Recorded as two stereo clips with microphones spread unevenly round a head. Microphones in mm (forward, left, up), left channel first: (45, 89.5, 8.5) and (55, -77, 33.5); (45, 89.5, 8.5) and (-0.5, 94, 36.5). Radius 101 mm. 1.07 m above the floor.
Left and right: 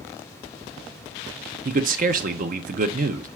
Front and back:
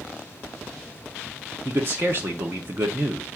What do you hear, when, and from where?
1.6 s a man speaking: 115° right, 0.5 m